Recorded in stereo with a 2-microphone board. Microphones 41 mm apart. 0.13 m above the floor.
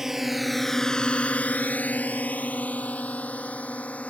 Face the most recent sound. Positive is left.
turn(degrees=35)  # may be behind; listen again after turning